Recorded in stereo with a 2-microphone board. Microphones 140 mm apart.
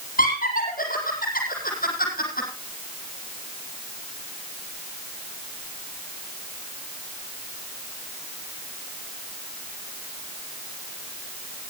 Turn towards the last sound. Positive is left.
turn(degrees=80)